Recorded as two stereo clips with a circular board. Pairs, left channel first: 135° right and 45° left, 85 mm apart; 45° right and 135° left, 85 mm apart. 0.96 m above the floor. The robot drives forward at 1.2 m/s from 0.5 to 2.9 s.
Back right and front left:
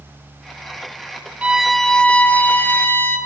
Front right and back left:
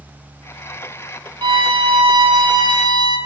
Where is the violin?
115° left, 0.9 m; by 3.2 s 160° left, 2.5 m.